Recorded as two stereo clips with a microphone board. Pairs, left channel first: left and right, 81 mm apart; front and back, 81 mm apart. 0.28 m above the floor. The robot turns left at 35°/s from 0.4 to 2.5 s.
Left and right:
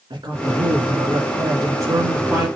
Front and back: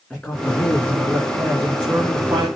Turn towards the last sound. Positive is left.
turn(degrees=-145)